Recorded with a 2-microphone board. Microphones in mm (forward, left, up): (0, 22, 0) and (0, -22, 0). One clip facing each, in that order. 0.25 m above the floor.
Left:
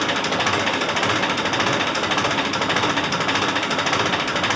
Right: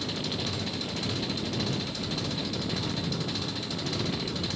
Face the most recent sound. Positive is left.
turn(degrees=60)  # may be behind; listen again after turning